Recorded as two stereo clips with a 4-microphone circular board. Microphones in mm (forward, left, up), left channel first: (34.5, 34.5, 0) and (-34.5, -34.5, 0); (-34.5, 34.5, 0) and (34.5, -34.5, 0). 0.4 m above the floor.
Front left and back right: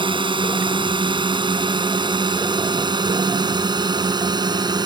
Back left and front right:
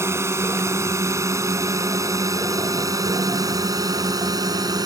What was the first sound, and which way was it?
A drone, 105° right.